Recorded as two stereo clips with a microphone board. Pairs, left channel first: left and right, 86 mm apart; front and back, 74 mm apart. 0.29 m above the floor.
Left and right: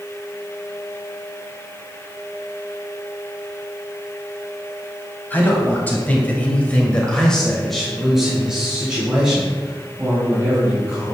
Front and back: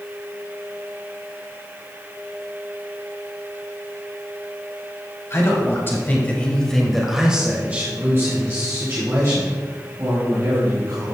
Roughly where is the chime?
No chime in this recording.